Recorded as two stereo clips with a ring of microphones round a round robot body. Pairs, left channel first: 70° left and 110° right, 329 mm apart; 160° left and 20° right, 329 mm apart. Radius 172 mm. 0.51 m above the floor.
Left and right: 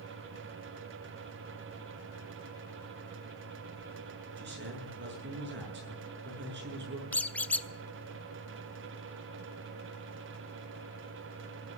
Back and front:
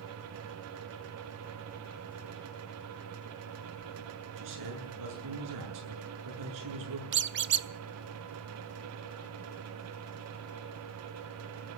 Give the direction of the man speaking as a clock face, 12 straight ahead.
2 o'clock.